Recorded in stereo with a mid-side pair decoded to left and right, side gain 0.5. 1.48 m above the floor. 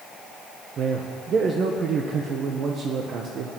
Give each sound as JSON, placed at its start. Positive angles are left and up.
{"t": 0.8, "sound": "a man speaking", "azimuth_deg": -55, "distance_m": 1.4}